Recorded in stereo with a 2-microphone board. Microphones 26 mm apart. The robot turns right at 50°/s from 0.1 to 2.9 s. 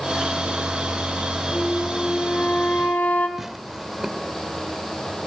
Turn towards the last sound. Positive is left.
turn(degrees=-5)  # may be behind; listen again after turning